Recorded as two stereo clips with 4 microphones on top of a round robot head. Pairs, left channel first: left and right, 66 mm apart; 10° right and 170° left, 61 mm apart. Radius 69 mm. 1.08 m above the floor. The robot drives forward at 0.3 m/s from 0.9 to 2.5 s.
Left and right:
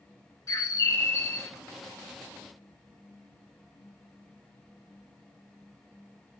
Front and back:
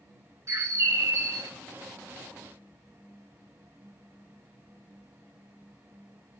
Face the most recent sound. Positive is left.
turn(degrees=150)